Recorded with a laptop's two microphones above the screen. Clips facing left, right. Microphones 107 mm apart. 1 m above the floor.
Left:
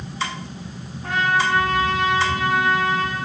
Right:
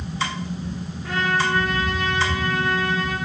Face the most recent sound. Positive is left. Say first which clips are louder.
# left 2 dB
turn(degrees=70)  # may be behind; listen again after turning